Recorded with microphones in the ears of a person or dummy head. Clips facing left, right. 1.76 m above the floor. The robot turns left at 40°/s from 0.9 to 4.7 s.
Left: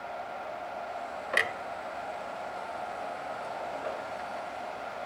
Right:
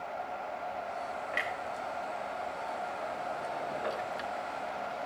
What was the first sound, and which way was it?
A clunk, 65° left (ahead or behind).